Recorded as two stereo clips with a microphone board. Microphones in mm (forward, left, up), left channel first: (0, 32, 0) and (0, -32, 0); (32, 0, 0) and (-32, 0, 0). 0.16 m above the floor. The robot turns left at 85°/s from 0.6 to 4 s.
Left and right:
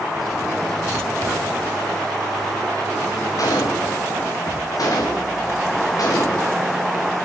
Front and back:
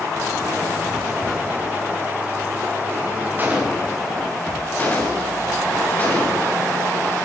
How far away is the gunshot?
About 6.5 m.